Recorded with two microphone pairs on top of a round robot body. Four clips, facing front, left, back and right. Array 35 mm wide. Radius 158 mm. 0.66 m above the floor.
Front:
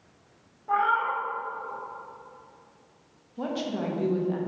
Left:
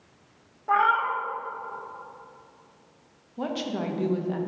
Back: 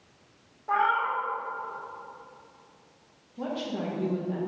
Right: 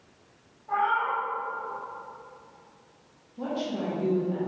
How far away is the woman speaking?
About 1.1 m.